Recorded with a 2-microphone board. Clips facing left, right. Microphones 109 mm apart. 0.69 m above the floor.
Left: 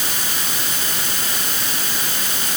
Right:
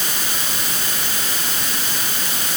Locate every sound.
Only background noise.